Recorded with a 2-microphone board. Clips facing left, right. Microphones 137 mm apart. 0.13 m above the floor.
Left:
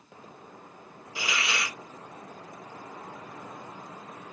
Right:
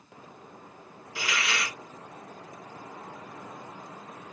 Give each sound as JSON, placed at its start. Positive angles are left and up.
{"t": 1.1, "sound": "a hiss", "side_deg": 20, "distance_m": 1.6}